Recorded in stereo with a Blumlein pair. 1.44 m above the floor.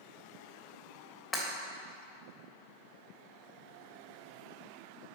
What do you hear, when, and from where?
1.3 s breaking glass: 20° left, 3 m